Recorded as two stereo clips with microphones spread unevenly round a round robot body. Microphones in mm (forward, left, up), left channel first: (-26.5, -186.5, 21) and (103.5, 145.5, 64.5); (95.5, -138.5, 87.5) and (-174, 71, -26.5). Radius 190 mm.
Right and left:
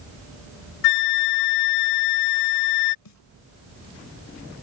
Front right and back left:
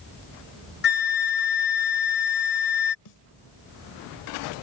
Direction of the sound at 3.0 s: 70° right.